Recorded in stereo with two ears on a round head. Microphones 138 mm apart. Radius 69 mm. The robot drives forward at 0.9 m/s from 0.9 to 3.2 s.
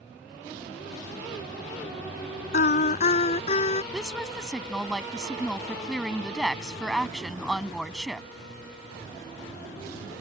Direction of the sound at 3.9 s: Centre (ahead or behind).